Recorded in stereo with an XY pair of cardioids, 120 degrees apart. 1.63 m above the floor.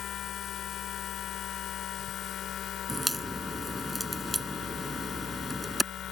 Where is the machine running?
60° left.